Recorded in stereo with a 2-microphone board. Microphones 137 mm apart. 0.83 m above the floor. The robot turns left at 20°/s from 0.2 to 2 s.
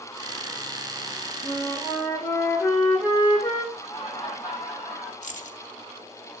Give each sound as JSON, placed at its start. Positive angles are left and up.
{"t": 1.4, "sound": "a flute", "side_deg": 5, "distance_m": 5.0}
{"t": 3.7, "sound": "laughter", "side_deg": 15, "distance_m": 5.5}
{"t": 5.2, "sound": "keys jangling", "side_deg": 65, "distance_m": 0.6}